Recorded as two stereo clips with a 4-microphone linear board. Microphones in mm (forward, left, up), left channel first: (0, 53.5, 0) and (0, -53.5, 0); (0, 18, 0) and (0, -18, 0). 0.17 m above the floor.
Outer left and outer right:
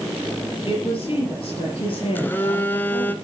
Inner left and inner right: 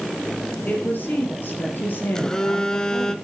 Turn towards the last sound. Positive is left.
turn(degrees=20)  # may be behind; listen again after turning